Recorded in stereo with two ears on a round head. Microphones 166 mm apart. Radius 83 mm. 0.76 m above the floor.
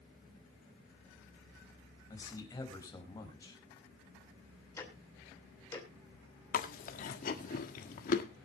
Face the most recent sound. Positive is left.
turn(degrees=45)  # may be behind; listen again after turning